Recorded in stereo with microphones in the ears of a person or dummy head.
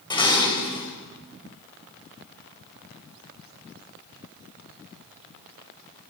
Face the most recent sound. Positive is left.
turn(degrees=25)  # may be behind; listen again after turning